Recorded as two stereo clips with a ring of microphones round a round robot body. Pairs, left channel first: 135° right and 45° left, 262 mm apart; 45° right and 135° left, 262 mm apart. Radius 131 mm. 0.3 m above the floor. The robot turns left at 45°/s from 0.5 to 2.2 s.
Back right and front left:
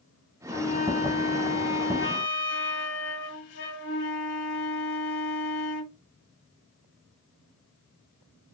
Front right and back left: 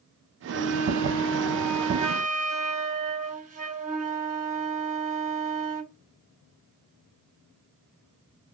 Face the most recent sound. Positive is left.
turn(degrees=-170)